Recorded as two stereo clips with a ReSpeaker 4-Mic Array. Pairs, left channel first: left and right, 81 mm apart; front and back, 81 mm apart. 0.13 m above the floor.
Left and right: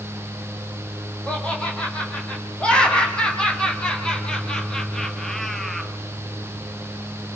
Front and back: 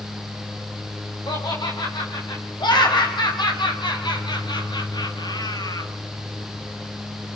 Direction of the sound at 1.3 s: 15° left.